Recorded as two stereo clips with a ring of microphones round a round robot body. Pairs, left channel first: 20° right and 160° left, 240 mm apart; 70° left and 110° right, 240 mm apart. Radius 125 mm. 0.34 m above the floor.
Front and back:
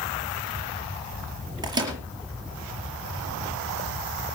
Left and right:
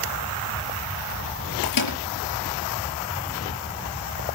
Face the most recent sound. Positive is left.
turn(degrees=85)